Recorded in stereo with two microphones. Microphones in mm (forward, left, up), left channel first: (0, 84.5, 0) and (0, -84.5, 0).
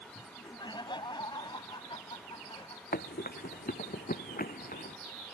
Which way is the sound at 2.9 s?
65° left (ahead or behind).